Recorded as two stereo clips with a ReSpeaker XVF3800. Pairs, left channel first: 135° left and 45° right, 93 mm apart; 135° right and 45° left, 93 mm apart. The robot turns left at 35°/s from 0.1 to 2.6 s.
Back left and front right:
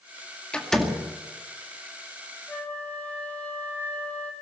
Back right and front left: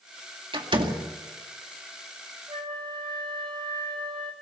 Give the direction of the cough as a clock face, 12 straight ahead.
No cough in this recording.